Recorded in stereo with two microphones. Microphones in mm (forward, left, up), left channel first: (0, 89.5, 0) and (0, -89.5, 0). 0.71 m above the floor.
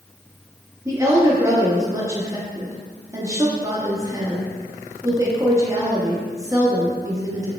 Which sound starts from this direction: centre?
A woman speaking, at 0.8 s.